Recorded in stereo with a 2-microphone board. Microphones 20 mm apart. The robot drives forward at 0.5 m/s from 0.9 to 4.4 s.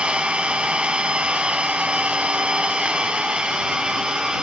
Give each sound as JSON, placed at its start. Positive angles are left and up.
{"t": 0.0, "sound": "an engine running", "side_deg": -75, "distance_m": 1.7}